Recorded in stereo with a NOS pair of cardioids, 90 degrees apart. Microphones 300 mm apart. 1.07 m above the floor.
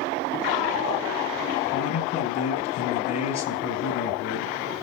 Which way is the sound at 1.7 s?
60° left.